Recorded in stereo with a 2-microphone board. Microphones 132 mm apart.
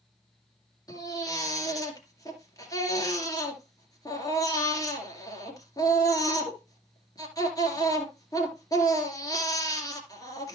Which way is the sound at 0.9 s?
30° left (ahead or behind).